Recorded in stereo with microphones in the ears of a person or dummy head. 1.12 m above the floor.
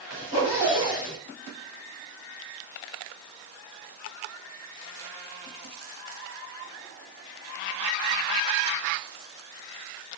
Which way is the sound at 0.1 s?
50° left (ahead or behind).